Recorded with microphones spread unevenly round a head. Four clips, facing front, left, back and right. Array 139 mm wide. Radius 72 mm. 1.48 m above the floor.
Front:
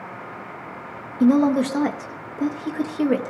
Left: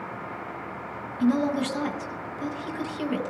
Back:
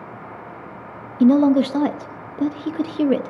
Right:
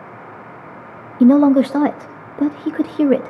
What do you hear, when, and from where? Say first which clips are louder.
1.2 s a woman speaking: right 13 dB, back 3 dB; 100° right, 0.7 m